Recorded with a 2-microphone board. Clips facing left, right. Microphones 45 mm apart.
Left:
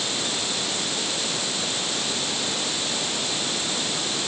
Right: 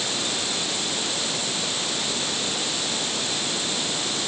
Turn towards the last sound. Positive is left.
No sound to turn to.